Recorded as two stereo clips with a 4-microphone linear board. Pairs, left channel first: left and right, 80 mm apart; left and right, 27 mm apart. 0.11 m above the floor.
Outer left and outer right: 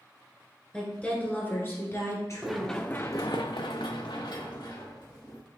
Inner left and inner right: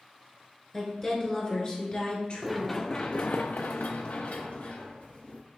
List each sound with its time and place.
0.7 s a woman speaking: 10° left (ahead or behind), 1.3 m; by 2.8 s 50° left (ahead or behind), 1.7 m
2.4 s running footsteps: 5° right (ahead or behind), 0.8 m; by 5.4 s 55° left (ahead or behind), 2 m